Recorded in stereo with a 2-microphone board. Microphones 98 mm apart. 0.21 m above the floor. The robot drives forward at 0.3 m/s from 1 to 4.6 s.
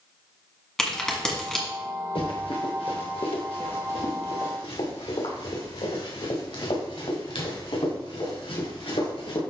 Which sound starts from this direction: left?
Running footsteps, at 2.1 s.